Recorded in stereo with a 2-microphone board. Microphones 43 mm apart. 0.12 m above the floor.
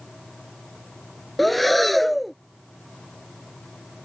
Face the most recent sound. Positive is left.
turn(degrees=0)  # may be behind; listen again after turning